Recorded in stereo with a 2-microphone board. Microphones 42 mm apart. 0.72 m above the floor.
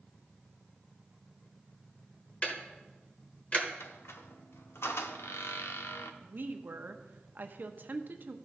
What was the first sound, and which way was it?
Ticking, 35° left (ahead or behind).